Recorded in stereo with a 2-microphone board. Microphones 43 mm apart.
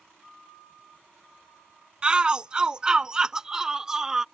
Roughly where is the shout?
Right.